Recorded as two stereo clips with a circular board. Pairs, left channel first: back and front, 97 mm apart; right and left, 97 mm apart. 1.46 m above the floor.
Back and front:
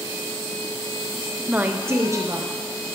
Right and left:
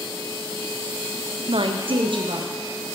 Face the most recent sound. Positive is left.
turn(degrees=55)